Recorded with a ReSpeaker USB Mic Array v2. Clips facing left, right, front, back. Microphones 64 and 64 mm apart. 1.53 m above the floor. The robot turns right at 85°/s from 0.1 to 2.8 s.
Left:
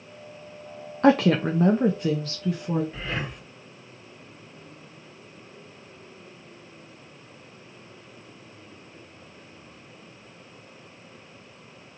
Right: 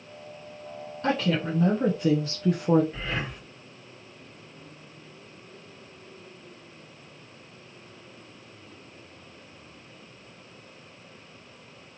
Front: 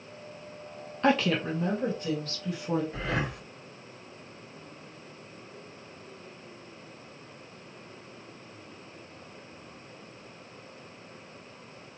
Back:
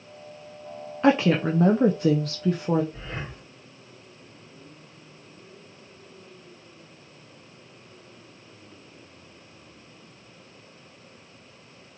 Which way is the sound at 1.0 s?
100° left.